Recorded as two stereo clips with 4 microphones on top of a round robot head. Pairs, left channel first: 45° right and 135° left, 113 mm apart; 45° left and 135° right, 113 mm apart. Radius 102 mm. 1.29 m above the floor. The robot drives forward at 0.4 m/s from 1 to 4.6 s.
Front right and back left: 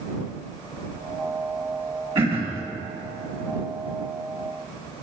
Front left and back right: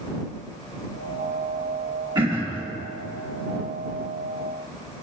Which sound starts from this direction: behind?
Throat clearing, at 2.1 s.